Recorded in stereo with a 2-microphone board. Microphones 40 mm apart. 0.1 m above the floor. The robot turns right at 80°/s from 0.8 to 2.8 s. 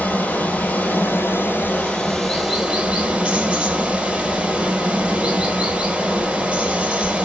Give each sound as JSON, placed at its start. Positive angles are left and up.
{"t": 0.0, "sound": "running water", "azimuth_deg": 60, "distance_m": 1.4}